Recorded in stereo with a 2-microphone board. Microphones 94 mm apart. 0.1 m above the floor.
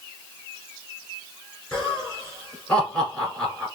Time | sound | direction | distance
1.7 | laughter | 10° left (ahead or behind) | 1.8 m